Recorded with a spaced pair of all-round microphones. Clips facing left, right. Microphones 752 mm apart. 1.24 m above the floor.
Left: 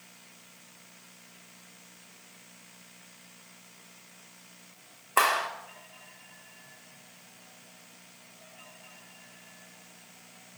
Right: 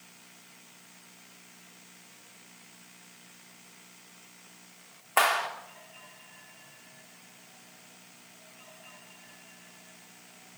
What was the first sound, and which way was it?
A clap, 25° right (ahead or behind).